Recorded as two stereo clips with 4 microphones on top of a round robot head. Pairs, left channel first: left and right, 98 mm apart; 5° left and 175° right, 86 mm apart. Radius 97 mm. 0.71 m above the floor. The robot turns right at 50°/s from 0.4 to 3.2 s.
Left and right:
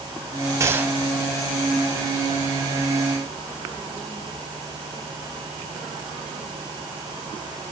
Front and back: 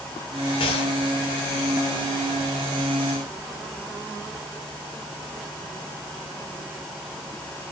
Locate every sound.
0.6 s a gunshot: 30° right, 1.7 m; by 1.0 s 10° right, 1.7 m